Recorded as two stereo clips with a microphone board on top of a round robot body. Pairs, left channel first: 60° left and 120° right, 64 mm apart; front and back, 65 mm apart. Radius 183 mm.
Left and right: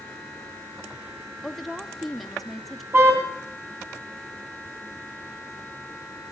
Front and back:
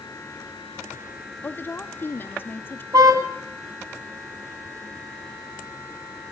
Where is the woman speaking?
25° right, 1.2 m.